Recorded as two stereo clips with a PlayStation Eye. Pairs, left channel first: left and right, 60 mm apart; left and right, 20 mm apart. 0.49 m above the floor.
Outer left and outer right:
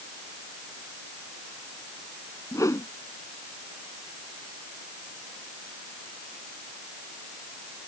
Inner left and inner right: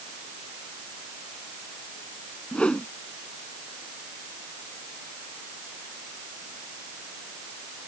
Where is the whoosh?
60° left (ahead or behind).